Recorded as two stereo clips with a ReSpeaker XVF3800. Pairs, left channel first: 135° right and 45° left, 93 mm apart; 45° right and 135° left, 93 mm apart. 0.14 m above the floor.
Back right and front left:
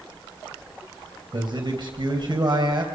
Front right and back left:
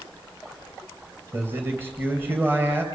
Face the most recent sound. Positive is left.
turn(degrees=70)